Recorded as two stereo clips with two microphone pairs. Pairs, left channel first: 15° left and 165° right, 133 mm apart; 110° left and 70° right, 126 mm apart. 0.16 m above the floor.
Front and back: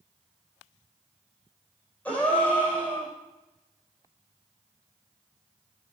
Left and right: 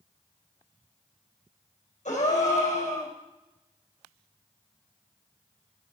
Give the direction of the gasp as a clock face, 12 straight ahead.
9 o'clock.